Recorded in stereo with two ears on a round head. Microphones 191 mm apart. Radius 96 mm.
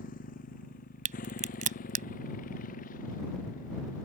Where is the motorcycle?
40° left (ahead or behind); by 4.1 s 35° left (ahead or behind).